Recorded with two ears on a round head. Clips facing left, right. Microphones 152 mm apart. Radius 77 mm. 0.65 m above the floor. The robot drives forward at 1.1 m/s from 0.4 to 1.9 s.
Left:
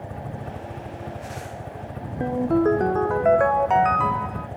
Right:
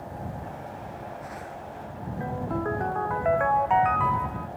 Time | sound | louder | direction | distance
0.0 | a helicopter | left 2 dB | 65° left (ahead or behind) | ?
2.2 | a ringtone | left 10 dB | 45° left (ahead or behind) | ?